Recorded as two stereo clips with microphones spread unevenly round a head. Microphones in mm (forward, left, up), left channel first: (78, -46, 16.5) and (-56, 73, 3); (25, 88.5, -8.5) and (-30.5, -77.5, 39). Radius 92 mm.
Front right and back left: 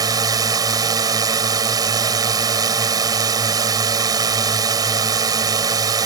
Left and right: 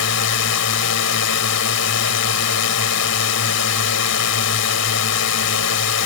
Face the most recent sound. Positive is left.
turn(degrees=70)